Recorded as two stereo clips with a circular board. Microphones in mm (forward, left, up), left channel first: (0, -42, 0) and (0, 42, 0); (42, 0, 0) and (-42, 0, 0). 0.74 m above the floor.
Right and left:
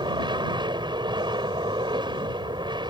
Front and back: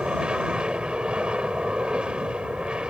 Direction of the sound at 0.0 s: 100° left.